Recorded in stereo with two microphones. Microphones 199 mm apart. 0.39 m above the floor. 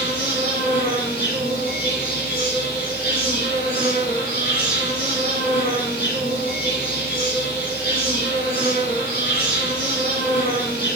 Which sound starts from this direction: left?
An insect, at 0.0 s.